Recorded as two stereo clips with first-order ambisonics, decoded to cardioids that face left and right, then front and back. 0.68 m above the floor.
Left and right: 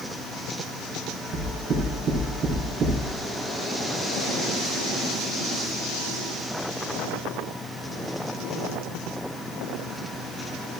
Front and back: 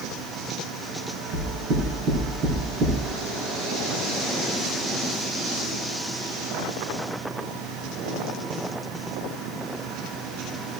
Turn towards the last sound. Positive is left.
turn(degrees=-145)